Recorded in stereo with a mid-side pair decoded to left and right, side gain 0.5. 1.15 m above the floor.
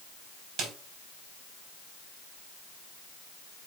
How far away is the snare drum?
About 3.5 m.